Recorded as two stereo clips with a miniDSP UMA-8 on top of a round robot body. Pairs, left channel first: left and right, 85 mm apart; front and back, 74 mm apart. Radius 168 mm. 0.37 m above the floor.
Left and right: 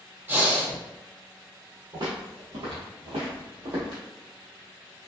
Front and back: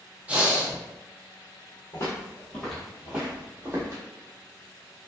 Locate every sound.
0.3 s breathing: 125° right, 1.2 m
1.9 s footsteps: 50° right, 1.1 m; by 4.0 s 130° right, 1.4 m